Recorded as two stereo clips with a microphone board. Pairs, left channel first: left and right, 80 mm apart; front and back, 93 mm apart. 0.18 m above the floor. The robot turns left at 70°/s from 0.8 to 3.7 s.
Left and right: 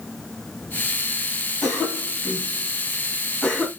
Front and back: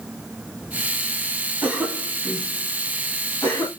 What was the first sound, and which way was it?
A cough, 165° left.